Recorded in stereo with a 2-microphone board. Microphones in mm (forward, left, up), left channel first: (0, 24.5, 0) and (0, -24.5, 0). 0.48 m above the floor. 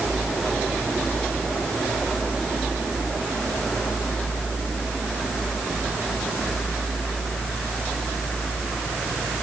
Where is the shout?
I don't hear a shout.